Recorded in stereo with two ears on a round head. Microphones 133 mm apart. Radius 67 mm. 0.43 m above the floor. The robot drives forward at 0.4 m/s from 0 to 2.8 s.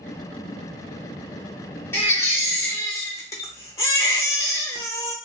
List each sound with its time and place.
1.9 s a baby crying: 15° left (ahead or behind), 0.9 m; by 5.2 s 20° left (ahead or behind), 0.7 m